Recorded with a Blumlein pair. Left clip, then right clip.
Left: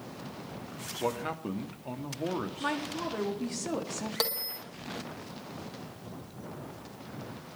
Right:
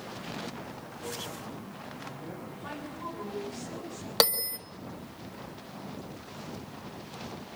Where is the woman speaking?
55° left, 3.5 m.